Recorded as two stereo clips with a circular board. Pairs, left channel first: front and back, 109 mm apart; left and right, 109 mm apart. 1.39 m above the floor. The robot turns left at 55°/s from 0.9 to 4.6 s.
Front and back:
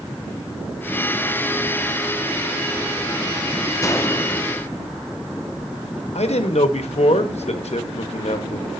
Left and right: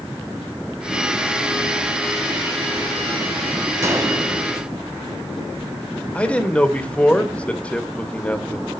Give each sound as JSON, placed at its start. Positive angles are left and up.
{"t": 3.8, "sound": "a gunshot", "azimuth_deg": -40, "distance_m": 1.0}
{"t": 6.2, "sound": "a man speaking", "azimuth_deg": 10, "distance_m": 1.0}